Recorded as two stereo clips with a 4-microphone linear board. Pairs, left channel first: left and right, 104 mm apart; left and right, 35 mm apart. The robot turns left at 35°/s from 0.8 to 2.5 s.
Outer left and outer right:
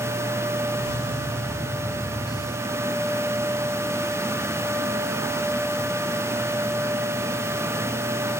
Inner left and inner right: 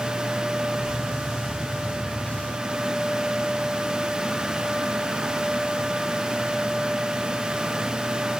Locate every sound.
Only background noise.